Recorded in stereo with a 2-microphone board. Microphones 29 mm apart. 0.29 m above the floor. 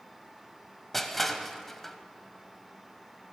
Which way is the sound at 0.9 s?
5° left (ahead or behind).